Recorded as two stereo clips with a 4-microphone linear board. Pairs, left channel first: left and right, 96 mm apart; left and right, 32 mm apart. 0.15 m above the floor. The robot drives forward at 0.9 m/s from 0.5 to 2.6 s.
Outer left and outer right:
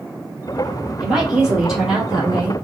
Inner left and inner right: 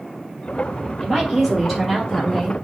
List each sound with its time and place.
1.0 s a woman speaking: 5° right (ahead or behind), 3.5 m